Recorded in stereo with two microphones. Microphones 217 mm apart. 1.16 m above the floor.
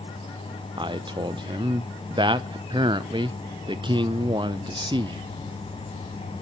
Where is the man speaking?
25° right (ahead or behind), 0.6 m.